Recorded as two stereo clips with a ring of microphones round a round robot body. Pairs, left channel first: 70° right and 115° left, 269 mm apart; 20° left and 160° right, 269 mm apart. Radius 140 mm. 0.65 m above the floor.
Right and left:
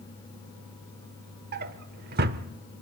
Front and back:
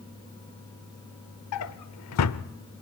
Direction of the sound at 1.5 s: 55° left.